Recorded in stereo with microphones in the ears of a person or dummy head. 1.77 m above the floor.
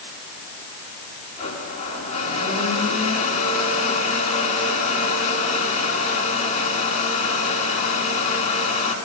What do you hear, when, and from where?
1.4 s a blender: 45° left (ahead or behind), 10 m